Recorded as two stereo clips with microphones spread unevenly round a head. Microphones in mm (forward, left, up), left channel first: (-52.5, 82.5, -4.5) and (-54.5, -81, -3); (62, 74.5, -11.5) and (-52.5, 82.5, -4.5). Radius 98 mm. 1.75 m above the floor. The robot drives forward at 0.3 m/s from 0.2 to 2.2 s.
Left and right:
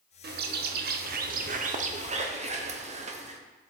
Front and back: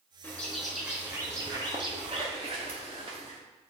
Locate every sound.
0.2 s a bird: 85° right, 0.6 m; by 3.4 s 135° right, 0.8 m